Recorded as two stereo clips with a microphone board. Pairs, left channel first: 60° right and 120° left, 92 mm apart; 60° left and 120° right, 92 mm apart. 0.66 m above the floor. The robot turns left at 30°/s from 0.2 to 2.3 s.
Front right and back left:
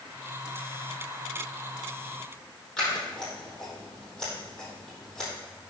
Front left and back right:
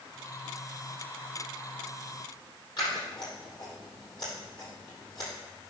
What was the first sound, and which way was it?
Scissors, 20° left.